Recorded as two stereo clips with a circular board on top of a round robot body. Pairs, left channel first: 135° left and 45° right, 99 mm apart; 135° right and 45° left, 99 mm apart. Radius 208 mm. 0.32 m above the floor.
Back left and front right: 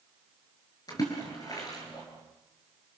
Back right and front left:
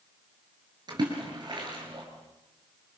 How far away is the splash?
About 7 m.